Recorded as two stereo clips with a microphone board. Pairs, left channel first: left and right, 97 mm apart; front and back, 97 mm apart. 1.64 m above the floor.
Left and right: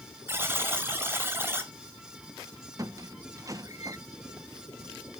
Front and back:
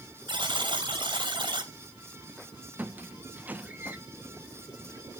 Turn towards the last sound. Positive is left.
turn(degrees=-115)